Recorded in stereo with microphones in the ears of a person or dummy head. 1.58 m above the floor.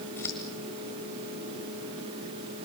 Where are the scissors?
15° left (ahead or behind), 1.5 m.